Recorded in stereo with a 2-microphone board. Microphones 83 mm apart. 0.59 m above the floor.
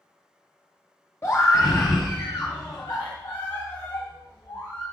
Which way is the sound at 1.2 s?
35° left (ahead or behind).